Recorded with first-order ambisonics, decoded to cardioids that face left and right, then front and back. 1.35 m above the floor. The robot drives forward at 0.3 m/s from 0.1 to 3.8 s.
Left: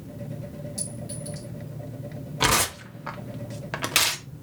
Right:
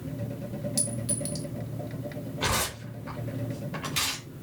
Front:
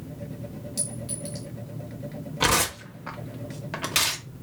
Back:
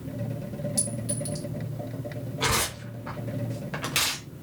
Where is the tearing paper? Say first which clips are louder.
Left 6 dB, front 3 dB; 60° left, 1.2 m; by 4.2 s 80° left, 1.1 m.